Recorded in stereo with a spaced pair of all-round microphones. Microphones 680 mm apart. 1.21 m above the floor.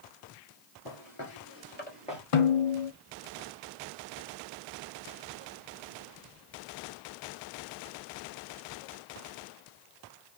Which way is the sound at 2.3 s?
55° left (ahead or behind).